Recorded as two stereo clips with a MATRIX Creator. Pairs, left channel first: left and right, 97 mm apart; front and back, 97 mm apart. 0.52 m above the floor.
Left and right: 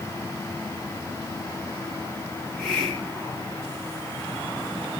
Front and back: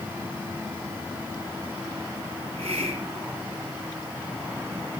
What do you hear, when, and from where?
2.4 s a hiss: straight behind, 5 m